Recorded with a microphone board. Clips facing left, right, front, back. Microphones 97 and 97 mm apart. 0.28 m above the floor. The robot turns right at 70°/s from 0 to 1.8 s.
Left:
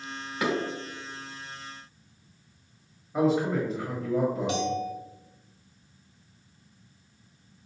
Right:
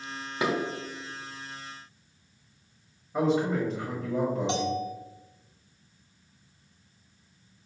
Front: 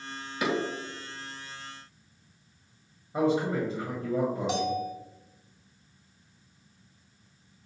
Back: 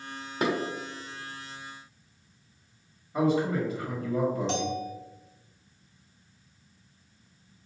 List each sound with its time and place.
0.4 s dishes clattering: 150° right, 1.1 m; by 0.5 s 145° right, 1.1 m
3.1 s a man speaking: 5° left, 1.2 m
4.5 s a bell: 70° right, 0.6 m